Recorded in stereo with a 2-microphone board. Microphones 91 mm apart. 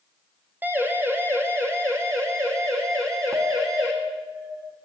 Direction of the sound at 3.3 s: 35° right (ahead or behind).